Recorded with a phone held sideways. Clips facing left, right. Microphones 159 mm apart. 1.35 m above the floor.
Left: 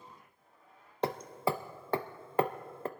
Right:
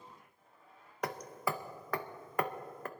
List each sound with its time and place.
1.0 s hammering: 30° left (ahead or behind), 0.6 m